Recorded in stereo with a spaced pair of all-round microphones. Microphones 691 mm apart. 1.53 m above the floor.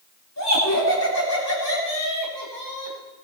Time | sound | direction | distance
0.4 | laughter | 20° left (ahead or behind) | 9 m